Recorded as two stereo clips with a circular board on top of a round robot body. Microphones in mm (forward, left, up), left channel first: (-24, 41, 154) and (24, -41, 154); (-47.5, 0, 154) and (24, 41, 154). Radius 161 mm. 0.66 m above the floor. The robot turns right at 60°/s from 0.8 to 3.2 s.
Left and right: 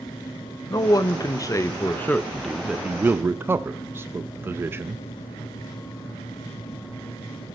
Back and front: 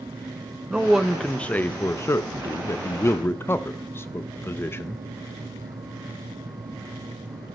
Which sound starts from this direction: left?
A man speaking, at 0.7 s.